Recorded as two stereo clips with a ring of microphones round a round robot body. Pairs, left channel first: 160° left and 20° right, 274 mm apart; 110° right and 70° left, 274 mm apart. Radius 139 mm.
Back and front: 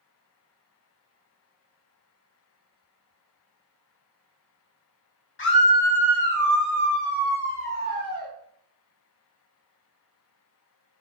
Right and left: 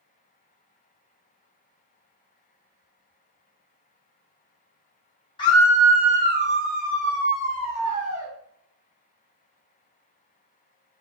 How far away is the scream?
About 1.4 m.